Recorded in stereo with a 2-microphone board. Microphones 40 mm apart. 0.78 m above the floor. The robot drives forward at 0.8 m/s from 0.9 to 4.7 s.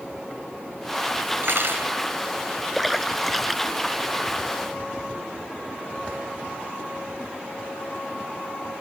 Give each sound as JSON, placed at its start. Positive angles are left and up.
{"t": 1.4, "sound": "cutlery clinking", "side_deg": -70}
{"t": 2.8, "sound": "a splash", "side_deg": 0}